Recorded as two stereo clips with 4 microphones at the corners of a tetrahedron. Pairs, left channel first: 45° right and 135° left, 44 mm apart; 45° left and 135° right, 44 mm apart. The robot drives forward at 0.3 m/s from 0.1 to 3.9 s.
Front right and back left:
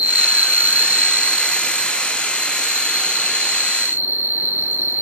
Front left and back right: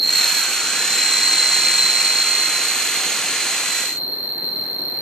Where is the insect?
140° left, 0.7 m; by 5.0 s 170° left, 1.6 m.